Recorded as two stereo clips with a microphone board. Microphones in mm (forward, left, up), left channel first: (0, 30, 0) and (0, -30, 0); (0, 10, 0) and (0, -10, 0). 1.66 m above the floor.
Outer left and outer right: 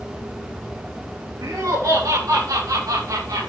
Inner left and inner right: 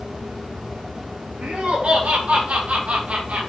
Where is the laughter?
85° right, 3.5 m; by 3.5 s 75° right (ahead or behind), 2.5 m.